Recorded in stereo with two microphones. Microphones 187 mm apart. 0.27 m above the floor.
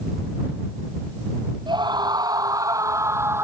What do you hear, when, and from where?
1.7 s a scream: 25° right (ahead or behind); by 3.4 s 15° right (ahead or behind)